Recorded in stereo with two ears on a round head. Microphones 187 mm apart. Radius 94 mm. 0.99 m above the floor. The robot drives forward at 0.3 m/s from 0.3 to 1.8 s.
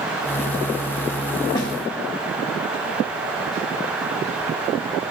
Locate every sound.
1.6 s a snare drum: 25° left (ahead or behind), 2 m